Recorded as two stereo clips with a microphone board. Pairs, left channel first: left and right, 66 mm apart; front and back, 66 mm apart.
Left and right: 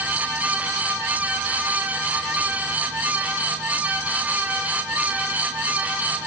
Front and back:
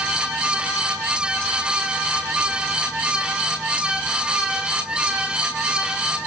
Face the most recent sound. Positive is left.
No sound to turn to.